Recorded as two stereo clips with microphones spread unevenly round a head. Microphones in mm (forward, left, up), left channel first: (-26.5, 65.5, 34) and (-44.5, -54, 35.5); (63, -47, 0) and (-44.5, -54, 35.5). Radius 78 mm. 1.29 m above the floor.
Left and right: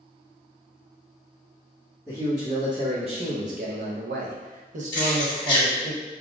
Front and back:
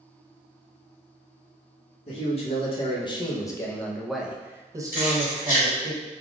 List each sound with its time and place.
2.1 s a man speaking: 25° right, 1.3 m; by 5.9 s 145° right, 1.4 m
4.9 s keys jangling: 20° left, 1.8 m